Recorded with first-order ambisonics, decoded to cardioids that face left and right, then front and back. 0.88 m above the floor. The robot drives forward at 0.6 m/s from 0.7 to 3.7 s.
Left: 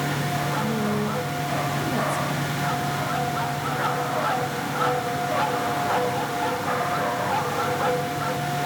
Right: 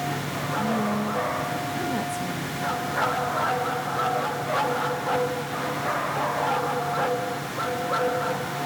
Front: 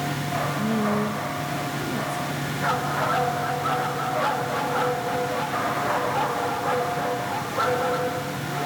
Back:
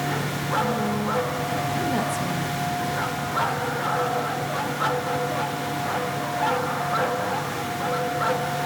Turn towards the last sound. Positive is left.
turn(degrees=180)